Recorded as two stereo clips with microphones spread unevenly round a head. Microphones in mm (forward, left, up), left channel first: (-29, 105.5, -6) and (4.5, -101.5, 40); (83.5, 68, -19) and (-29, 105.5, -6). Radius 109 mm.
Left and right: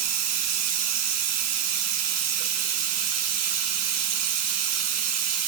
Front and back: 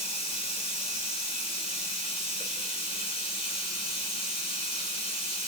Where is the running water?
85° right, 3 m.